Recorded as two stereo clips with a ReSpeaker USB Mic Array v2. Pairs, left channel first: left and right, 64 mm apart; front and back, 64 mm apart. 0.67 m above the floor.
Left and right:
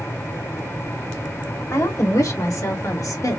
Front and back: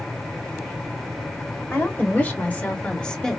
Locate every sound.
1.7 s a woman speaking: 55° left, 2.5 m; by 3.4 s 80° left, 1.7 m